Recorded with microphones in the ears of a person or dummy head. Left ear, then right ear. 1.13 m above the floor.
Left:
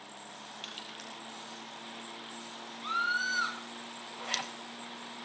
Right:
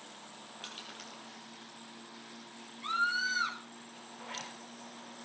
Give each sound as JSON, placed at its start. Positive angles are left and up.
{"t": 0.6, "sound": "crushing", "side_deg": 15, "distance_m": 4.5}
{"t": 2.8, "sound": "a scream", "side_deg": 5, "distance_m": 7.0}
{"t": 4.2, "sound": "a zipper", "side_deg": 80, "distance_m": 3.0}